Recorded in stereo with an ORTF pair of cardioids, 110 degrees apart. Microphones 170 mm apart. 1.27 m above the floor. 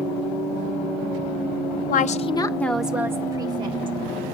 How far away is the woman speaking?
About 0.8 m.